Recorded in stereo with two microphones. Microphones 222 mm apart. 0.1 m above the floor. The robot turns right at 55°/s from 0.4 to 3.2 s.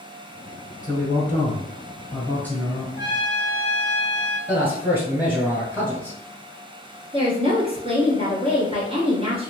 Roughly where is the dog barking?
I don't hear a dog barking.